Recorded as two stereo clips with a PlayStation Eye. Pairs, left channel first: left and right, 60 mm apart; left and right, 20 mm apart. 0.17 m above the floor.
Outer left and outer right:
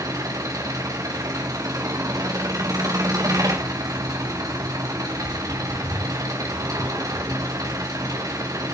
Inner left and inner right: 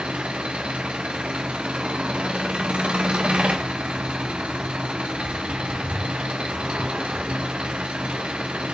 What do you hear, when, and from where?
0.0 s an engine running: 85° right, 5 m